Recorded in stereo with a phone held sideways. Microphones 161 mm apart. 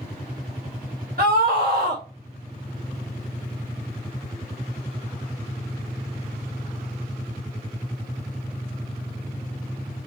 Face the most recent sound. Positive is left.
turn(degrees=-75)  # may be behind; listen again after turning